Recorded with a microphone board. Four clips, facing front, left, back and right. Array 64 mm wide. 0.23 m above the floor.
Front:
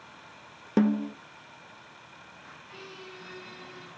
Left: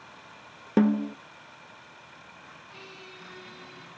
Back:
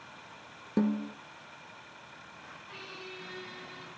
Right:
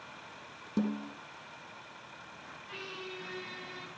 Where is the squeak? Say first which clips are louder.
Right 6 dB, even; 100° right, 5 m.